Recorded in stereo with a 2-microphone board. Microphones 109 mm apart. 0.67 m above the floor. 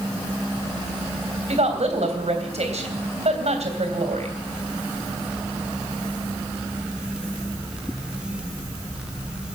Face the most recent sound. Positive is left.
turn(degrees=-80)